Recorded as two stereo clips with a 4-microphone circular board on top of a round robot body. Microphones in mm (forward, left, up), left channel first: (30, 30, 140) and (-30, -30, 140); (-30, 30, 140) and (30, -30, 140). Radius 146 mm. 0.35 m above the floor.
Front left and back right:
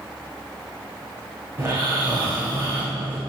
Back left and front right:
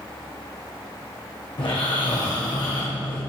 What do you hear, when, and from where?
1.6 s snoring: 160° left, 6.5 m